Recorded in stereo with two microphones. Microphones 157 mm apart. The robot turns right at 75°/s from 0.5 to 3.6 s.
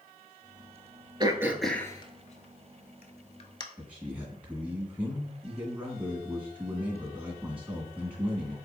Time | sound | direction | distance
1.2 | throat clearing | 30° right (ahead or behind) | 0.5 m
3.8 | a man speaking | 10° right (ahead or behind) | 1.5 m